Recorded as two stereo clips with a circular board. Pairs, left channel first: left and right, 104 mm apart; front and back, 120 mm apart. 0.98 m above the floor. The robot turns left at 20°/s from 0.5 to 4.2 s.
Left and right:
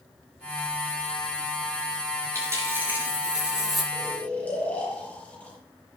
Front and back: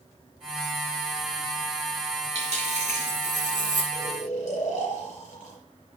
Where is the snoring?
20° left, 5.5 m; by 5.6 s 15° left, 5.5 m.